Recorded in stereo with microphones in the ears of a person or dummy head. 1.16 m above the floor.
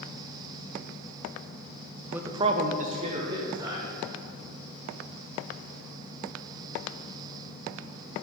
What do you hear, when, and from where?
2.1 s a man speaking: 10° right (ahead or behind), 0.8 m; by 3.9 s 20° right (ahead or behind), 1.9 m